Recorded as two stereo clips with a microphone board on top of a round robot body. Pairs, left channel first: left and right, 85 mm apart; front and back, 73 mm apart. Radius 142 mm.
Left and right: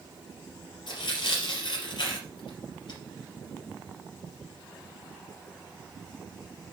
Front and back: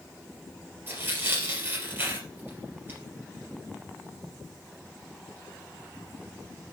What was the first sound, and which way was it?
Tearing paper, 120° left.